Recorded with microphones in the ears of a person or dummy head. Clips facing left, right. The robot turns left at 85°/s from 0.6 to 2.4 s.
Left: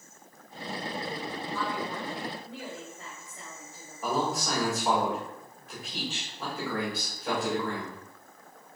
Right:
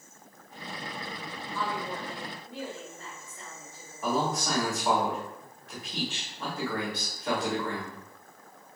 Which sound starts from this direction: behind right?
A woman speaking, at 1.5 s.